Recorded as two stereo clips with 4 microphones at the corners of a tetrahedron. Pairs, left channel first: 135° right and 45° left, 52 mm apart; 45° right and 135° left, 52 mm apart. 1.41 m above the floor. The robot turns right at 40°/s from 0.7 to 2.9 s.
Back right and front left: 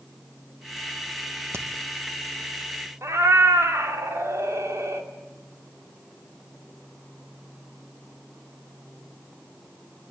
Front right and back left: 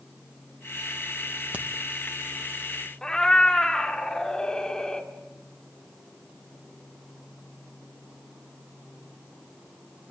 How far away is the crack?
About 1.7 m.